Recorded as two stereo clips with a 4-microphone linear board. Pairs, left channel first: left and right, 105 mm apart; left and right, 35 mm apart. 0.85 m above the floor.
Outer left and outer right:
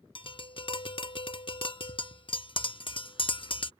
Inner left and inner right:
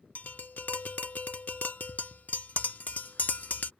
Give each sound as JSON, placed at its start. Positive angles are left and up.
{"t": 0.1, "sound": "tapping", "side_deg": 55}